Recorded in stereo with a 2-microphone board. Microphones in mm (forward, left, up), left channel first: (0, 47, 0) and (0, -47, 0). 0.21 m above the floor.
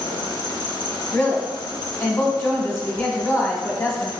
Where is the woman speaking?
30° left (ahead or behind), 1.1 m.